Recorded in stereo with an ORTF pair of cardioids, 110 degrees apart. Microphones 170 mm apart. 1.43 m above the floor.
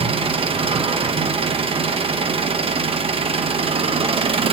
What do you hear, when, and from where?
0.0 s an engine running: 35° right, 1.1 m